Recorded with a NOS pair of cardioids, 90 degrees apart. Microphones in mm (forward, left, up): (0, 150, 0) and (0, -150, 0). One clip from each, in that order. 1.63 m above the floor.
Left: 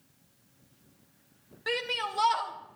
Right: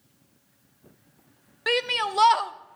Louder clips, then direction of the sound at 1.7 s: Right 7 dB; 45° right.